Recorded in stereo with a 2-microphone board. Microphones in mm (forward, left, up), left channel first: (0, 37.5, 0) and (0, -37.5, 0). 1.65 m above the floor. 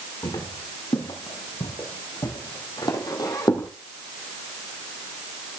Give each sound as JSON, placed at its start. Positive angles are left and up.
{"t": 0.2, "sound": "footsteps", "side_deg": 65, "distance_m": 5.5}